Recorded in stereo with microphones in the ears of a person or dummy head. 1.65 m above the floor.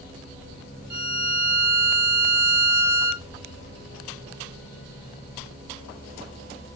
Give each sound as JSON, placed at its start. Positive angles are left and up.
{"t": 0.9, "sound": "a violin", "side_deg": -10, "distance_m": 2.0}